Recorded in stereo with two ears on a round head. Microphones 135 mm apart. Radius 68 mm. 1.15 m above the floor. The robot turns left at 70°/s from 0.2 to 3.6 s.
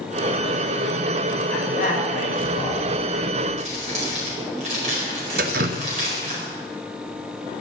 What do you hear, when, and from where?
1.5 s a man speaking: 145° left, 6 m; by 2.9 s 50° left, 6 m
3.6 s crumpling: 50° right (ahead or behind), 4.5 m
5.4 s dripping: 65° right (ahead or behind), 0.6 m